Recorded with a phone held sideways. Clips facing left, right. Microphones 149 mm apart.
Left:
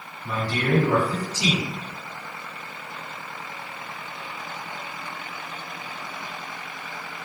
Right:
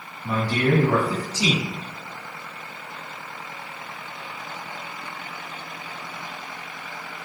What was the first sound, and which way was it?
A man speaking, 40° right (ahead or behind).